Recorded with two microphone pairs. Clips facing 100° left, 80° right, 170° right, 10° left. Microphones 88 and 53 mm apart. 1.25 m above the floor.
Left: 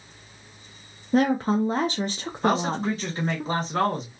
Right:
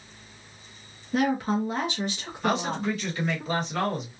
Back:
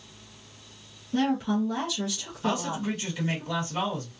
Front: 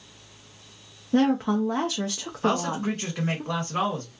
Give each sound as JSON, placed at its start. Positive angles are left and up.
{"t": 1.1, "sound": "a woman speaking", "azimuth_deg": 55, "distance_m": 0.6}
{"t": 2.4, "sound": "a man speaking", "azimuth_deg": 45, "distance_m": 1.7}